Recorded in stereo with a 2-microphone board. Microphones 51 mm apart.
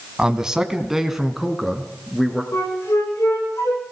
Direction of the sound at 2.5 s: 65° left (ahead or behind).